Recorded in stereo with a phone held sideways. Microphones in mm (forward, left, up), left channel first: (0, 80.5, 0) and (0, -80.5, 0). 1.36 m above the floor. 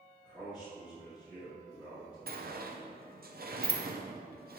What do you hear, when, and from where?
0.2 s a man speaking: 5° right (ahead or behind), 3 m
2.3 s a sliding door: 65° right (ahead or behind), 0.8 m